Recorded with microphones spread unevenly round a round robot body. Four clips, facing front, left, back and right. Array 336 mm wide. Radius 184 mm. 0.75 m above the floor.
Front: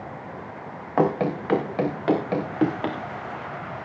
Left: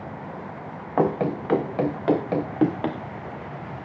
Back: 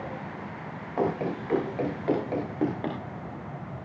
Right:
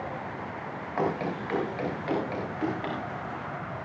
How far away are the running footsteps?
About 4.5 m.